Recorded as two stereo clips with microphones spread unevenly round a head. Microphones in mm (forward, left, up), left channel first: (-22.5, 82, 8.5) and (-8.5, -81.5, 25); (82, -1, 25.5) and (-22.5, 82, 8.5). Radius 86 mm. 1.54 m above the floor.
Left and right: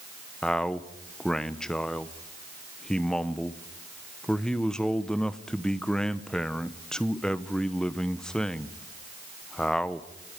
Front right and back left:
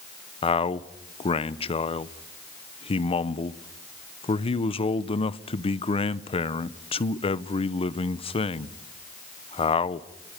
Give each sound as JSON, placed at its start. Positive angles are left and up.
{"t": 0.4, "sound": "a man speaking", "azimuth_deg": 10, "distance_m": 0.9}